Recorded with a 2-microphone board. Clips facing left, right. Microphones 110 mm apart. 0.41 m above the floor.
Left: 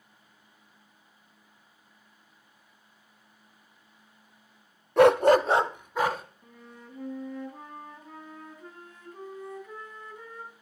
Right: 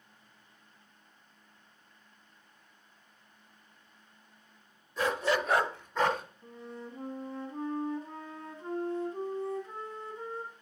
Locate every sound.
5.0 s a dog barking: 60° left (ahead or behind), 0.6 m; by 6.2 s 5° left (ahead or behind), 1.8 m
6.4 s a flute: 30° right (ahead or behind), 3 m